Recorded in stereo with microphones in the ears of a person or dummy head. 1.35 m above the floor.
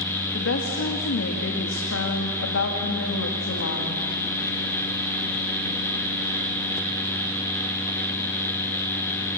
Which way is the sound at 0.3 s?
65° left (ahead or behind).